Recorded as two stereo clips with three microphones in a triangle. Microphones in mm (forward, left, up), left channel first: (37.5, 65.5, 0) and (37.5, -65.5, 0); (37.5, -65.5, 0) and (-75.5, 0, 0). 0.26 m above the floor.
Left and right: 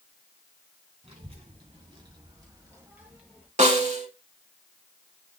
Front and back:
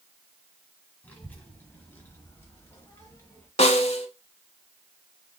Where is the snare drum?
65° right, 0.8 m.